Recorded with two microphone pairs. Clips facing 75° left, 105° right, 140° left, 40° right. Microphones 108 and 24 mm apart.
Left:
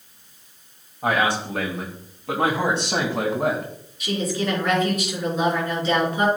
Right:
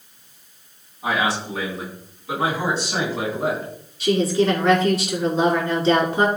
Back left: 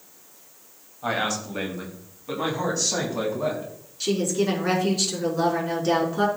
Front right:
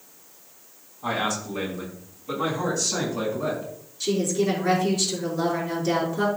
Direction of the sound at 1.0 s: 75° left.